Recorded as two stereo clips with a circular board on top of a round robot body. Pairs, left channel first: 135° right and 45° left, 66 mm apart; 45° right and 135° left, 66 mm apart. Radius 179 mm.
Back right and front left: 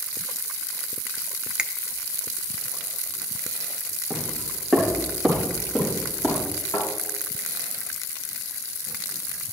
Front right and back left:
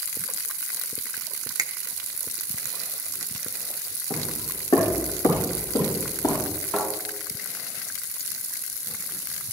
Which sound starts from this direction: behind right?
A thud, at 6.7 s.